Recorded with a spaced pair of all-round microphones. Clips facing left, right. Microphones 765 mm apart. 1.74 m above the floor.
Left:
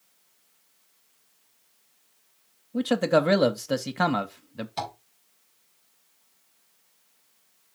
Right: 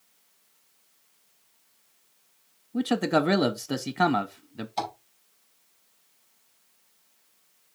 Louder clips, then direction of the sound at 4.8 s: Right 2 dB; 45° left (ahead or behind).